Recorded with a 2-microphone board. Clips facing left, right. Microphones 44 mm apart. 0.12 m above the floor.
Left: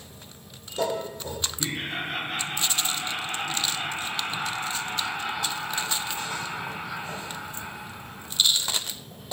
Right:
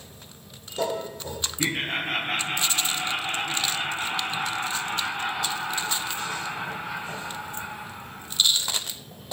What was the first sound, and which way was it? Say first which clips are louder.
Laughter: right 6 dB; 55° right (ahead or behind).